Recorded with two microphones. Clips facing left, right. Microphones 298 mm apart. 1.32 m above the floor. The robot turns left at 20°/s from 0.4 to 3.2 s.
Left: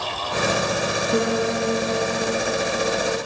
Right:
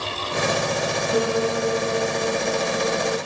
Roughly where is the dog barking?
No dog barking in this recording.